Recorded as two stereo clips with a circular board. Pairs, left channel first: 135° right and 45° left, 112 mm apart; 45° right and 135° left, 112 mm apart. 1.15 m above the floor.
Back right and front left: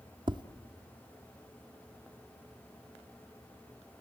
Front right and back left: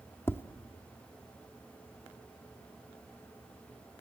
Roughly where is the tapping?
Ahead.